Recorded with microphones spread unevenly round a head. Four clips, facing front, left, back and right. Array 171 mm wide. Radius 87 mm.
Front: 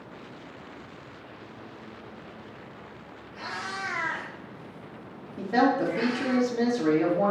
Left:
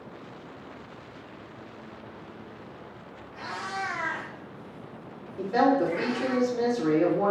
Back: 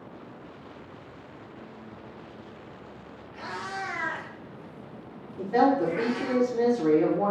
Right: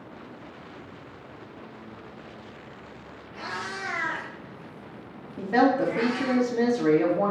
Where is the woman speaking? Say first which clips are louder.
Right 1 dB, back 1 dB; 60° right, 3 m.